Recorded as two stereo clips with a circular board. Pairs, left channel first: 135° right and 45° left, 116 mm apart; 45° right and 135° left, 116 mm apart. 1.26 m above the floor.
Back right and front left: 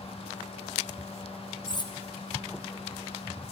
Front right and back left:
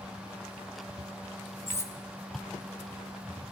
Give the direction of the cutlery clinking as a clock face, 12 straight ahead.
3 o'clock.